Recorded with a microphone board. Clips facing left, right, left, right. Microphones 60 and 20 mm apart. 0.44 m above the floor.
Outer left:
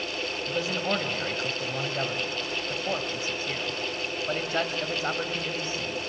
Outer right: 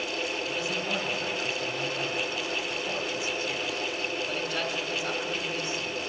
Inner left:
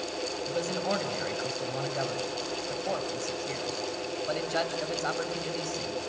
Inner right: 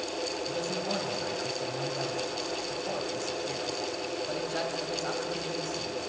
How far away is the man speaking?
About 2.5 m.